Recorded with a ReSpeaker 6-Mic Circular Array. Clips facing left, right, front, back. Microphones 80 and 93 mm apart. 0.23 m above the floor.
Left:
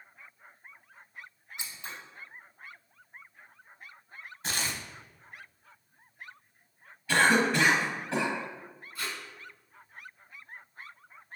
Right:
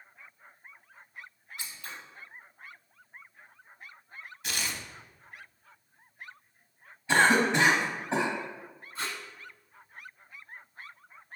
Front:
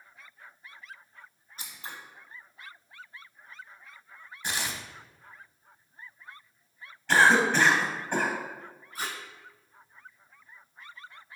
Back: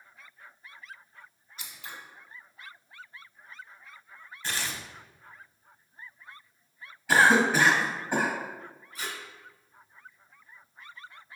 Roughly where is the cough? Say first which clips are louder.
Right 1 dB, even; right.